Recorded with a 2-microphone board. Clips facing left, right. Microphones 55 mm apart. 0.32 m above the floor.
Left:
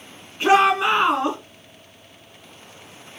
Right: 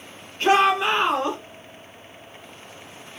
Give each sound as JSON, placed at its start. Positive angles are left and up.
{"t": 0.4, "sound": "a shout", "side_deg": 15, "distance_m": 3.0}